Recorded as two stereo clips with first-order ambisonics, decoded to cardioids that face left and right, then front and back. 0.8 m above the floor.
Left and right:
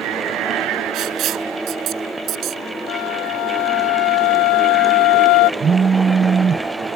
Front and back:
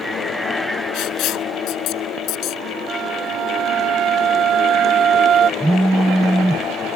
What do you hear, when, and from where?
0.9 s writing: 40° right
2.9 s a flute: 120° left
5.6 s a phone buzzing: 105° right